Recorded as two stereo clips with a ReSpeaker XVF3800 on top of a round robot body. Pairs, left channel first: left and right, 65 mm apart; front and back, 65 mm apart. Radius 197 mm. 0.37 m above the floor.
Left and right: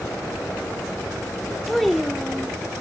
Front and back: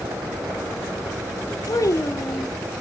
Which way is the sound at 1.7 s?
Straight ahead.